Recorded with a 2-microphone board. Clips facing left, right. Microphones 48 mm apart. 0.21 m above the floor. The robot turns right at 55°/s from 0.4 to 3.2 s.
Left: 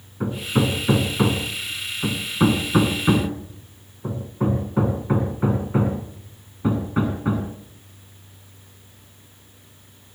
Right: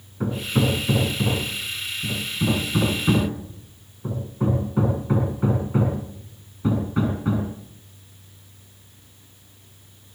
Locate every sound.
0.2 s hammering: 5° left (ahead or behind), 6.5 m; by 7.5 s 20° left (ahead or behind), 6.5 m